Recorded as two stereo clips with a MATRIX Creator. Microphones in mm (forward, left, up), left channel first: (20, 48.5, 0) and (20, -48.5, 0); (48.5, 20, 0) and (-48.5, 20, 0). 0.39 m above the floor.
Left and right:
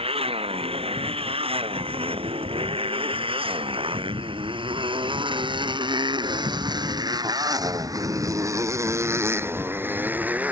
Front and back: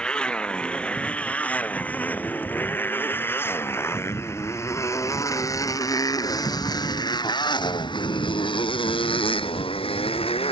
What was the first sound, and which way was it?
A motorcycle, 80° right.